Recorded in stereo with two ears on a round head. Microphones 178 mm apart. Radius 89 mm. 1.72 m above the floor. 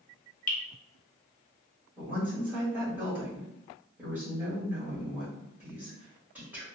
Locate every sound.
0.5 s dripping: 40° left (ahead or behind), 0.8 m
2.0 s a woman speaking: 10° right (ahead or behind), 1.8 m